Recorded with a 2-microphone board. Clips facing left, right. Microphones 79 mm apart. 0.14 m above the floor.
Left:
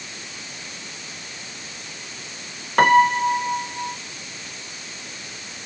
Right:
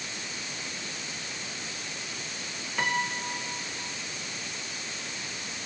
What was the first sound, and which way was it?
A piano, 60° left (ahead or behind).